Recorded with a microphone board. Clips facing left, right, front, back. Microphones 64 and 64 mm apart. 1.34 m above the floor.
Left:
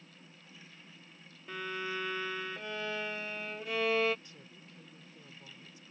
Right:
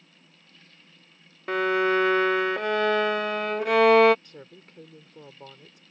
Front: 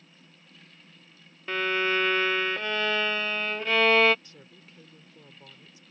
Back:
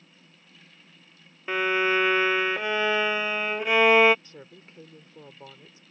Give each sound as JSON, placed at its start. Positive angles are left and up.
{"t": 1.5, "sound": "a violin", "azimuth_deg": -105}
{"t": 4.2, "sound": "a woman speaking", "azimuth_deg": -120}